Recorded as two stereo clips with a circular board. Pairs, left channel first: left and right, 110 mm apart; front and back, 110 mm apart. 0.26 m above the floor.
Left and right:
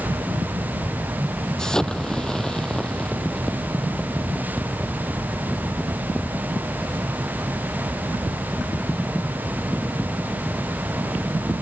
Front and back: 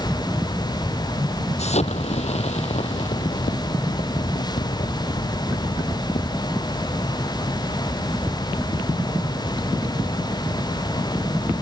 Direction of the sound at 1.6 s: 5° left.